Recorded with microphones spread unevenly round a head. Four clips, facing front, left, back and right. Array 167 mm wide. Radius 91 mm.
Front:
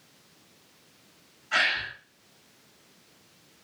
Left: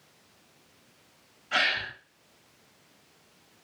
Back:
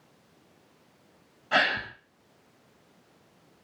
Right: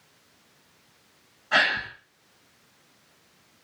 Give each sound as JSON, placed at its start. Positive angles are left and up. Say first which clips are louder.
{"t": 1.5, "sound": "a gasp", "louder": "right 5 dB, back 3 dB", "azimuth_deg": -160, "distance_m": 6.0}